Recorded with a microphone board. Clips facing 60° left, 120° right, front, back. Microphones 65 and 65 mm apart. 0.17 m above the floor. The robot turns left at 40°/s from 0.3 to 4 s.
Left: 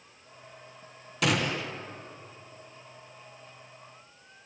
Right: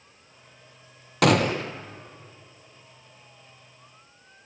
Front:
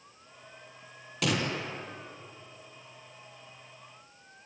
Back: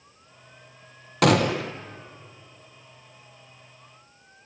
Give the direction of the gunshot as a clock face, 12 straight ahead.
5 o'clock.